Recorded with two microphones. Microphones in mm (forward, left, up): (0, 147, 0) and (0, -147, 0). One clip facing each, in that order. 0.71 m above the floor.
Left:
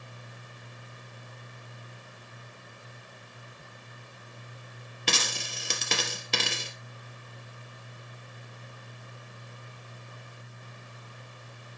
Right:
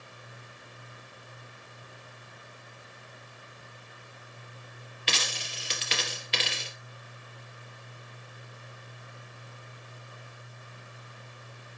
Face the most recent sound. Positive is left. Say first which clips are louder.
# left 3 dB
turn(degrees=55)  # may be behind; listen again after turning